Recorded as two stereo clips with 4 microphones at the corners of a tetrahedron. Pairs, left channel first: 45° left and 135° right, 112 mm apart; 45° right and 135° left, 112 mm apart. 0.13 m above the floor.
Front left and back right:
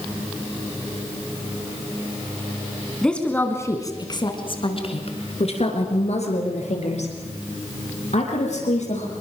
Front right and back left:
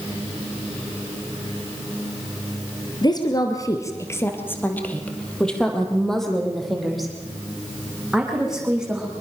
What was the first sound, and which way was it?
A woman speaking, 35° right.